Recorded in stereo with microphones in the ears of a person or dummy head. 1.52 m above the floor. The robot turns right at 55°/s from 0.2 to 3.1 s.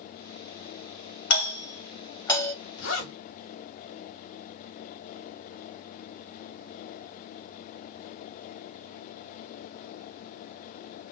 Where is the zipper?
75° left (ahead or behind), 1.5 m; by 3.2 s 55° left (ahead or behind), 1.5 m.